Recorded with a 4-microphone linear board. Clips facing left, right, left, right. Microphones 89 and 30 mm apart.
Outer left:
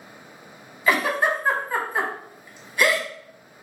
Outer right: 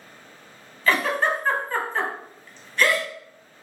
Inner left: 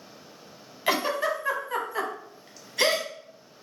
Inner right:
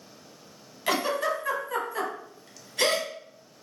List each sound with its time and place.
0.9 s a giggle: 15° left (ahead or behind), 0.5 m